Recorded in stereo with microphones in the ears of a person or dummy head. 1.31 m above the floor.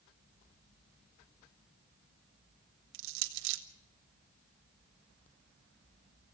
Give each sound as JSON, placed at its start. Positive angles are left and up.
{"t": 2.9, "sound": "crushing", "side_deg": -70, "distance_m": 1.3}